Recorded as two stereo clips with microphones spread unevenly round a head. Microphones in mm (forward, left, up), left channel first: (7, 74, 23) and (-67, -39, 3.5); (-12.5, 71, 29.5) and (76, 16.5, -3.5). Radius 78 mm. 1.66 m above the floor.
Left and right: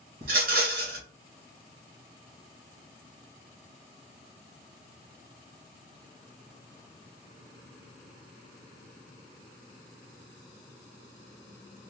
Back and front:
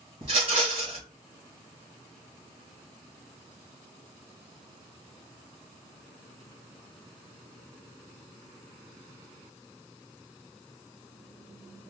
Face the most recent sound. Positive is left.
turn(degrees=-80)